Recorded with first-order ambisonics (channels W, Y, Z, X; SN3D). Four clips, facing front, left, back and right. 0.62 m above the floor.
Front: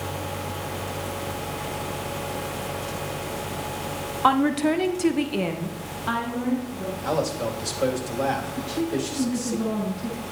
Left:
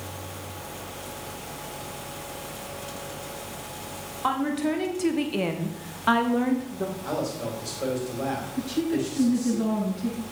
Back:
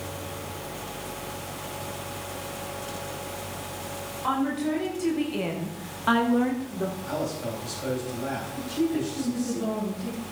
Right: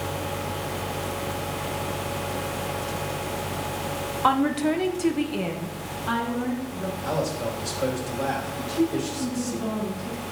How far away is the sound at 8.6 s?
About 7.5 m.